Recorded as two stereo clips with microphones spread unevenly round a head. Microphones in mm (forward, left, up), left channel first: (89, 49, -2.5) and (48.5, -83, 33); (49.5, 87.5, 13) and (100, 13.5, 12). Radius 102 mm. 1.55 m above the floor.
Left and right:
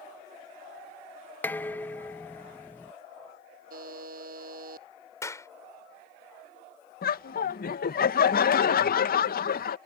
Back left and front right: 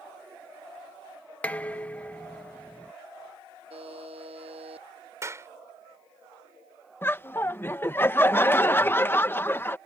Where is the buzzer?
105° right.